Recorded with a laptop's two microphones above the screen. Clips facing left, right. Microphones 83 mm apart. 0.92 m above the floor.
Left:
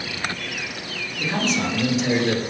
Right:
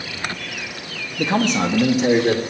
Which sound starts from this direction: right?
A man speaking, at 1.2 s.